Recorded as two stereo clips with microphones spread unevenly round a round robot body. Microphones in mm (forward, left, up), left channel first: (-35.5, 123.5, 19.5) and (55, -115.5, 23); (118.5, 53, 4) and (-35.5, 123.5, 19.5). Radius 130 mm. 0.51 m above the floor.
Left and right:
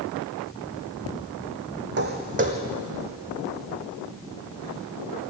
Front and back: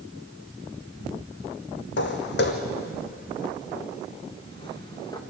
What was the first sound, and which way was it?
Footsteps, 20° right.